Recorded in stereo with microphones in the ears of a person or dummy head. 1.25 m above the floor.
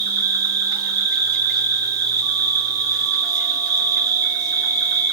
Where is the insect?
45° right (ahead or behind), 2.5 m.